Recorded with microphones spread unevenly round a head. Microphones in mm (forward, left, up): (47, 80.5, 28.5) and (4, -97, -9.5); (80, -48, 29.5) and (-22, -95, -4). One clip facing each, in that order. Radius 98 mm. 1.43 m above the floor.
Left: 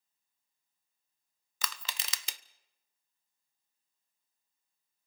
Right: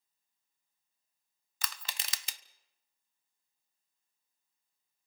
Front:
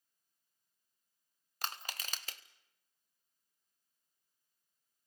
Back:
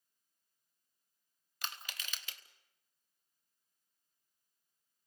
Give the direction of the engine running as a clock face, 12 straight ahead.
No engine running in this recording.